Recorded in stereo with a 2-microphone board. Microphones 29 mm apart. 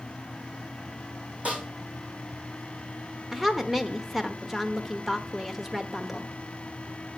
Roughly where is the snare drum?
Right.